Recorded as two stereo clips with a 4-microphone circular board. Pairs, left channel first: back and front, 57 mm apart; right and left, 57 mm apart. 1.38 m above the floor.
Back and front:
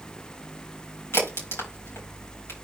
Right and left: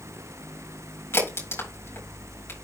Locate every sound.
1.1 s a crack: 135° right, 5.5 m